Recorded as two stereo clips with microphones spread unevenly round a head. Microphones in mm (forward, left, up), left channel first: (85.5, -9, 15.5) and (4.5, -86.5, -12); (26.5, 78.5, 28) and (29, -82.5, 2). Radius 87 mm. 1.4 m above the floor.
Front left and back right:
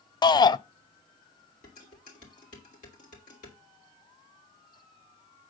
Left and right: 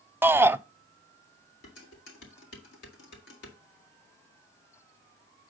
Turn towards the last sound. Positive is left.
turn(degrees=80)